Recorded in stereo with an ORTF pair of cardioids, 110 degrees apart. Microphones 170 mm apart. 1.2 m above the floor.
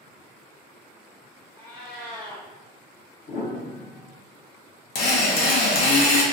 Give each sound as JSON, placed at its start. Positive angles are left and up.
{"t": 1.6, "sound": "a cat meowing", "azimuth_deg": 65, "distance_m": 1.3}
{"t": 3.3, "sound": "a piano", "azimuth_deg": 60, "distance_m": 1.2}
{"t": 5.0, "sound": "a drill", "azimuth_deg": 70, "distance_m": 0.8}